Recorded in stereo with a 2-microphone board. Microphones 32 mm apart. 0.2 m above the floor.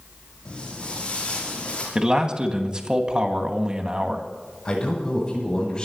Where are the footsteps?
25° left (ahead or behind), 9.5 m; by 1.9 s 30° left (ahead or behind), 10 m.